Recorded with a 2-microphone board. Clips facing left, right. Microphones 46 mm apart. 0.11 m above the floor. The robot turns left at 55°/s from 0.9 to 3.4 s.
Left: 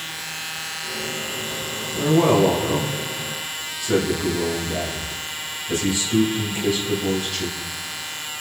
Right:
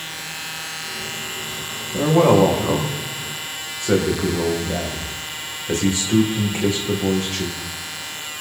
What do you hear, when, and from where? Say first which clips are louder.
1.9 s a man speaking: right 3 dB; 35° right, 7 m; by 7.6 s 115° right, 7 m